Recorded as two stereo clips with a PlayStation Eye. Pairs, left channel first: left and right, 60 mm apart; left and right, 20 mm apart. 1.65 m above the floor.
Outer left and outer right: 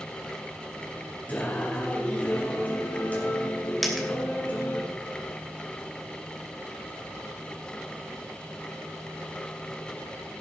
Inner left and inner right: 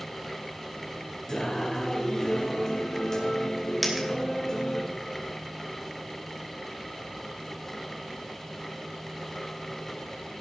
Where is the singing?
30° left (ahead or behind), 4 m.